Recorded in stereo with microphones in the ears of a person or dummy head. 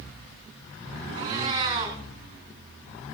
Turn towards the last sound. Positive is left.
turn(degrees=-25)  # may be behind; listen again after turning